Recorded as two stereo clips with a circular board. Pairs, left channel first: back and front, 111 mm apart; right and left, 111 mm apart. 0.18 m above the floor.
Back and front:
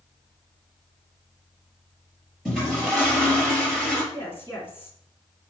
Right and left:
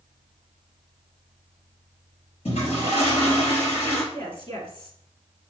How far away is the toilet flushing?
About 4 m.